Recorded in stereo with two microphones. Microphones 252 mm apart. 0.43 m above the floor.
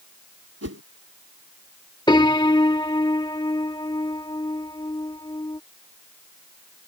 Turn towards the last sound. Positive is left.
turn(degrees=15)  # may be behind; listen again after turning